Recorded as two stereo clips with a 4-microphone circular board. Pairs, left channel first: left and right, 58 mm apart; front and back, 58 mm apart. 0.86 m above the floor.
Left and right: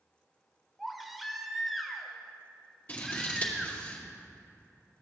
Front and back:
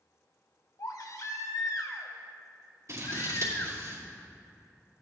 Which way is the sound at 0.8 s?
Straight ahead.